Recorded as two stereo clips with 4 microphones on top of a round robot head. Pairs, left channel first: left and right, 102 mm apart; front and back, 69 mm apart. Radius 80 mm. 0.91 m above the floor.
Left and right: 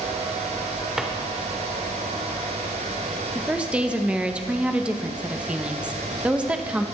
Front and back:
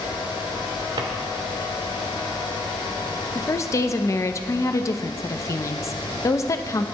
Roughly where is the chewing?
I don't hear chewing.